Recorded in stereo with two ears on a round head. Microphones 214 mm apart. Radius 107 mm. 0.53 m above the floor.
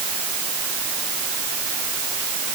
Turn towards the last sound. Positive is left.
No sound to turn to.